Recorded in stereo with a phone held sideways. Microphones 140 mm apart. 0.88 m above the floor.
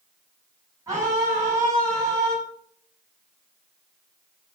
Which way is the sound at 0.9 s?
25° right (ahead or behind).